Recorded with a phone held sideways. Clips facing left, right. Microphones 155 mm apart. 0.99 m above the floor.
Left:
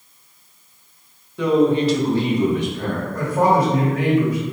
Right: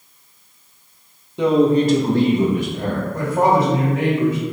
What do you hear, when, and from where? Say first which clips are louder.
1.4 s a man speaking: right 2 dB; 20° right (ahead or behind), 0.9 m; by 3.0 s 40° right (ahead or behind), 1.5 m
3.1 s a woman speaking: even; 25° right (ahead or behind), 1.9 m